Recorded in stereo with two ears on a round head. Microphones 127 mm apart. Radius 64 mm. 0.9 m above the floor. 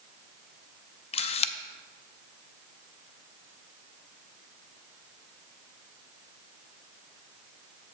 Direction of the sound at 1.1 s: 45° left (ahead or behind).